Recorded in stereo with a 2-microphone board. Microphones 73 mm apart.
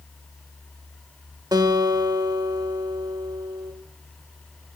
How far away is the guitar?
About 0.7 m.